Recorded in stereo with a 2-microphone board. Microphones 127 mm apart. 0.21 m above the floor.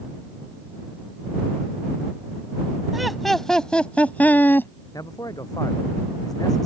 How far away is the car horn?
I don't hear a car horn.